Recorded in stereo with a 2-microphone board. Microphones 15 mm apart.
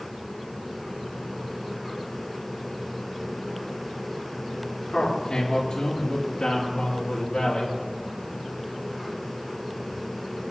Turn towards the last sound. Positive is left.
turn(degrees=60)  # may be behind; listen again after turning